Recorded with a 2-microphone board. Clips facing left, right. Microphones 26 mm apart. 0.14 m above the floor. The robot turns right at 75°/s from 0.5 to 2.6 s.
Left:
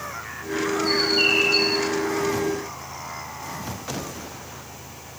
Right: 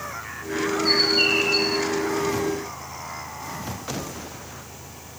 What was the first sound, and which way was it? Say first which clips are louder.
A bird: right 1 dB; 20° right.